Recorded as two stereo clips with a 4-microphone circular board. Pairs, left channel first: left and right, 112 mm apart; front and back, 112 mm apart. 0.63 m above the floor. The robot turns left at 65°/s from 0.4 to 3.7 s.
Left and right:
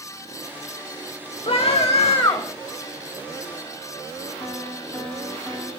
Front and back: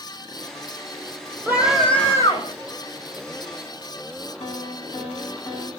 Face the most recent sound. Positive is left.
turn(degrees=15)